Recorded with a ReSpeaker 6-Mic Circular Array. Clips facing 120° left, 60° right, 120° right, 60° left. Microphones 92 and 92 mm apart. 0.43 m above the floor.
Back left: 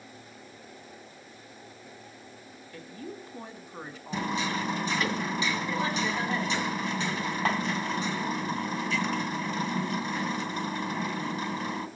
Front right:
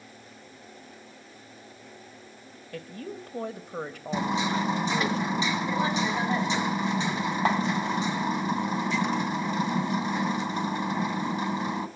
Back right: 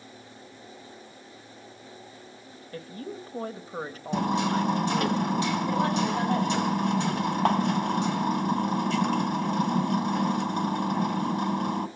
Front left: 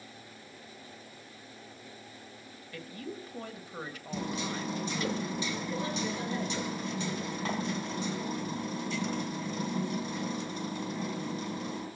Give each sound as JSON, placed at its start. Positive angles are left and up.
{"t": 2.7, "sound": "a woman speaking", "azimuth_deg": -70, "distance_m": 2.0}
{"t": 4.1, "sound": "hammering", "azimuth_deg": -125, "distance_m": 2.0}